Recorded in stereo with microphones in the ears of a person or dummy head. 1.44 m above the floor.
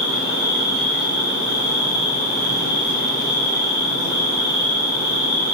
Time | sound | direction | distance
0.0 | an insect | 50° right (ahead or behind) | 1.3 m